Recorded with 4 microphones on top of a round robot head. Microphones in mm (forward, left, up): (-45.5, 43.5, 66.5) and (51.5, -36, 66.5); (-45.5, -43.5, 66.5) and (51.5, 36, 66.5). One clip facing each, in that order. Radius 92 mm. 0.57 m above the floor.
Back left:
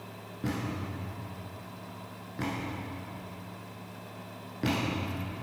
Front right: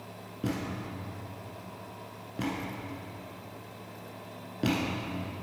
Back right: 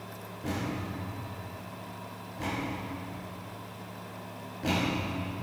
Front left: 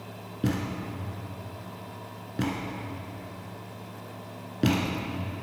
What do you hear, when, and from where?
0.4 s a thud: 35° left, 1.3 m